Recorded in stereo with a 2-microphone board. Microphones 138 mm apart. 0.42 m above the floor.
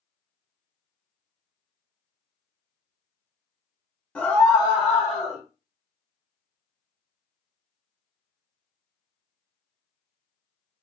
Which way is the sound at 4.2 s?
10° left (ahead or behind).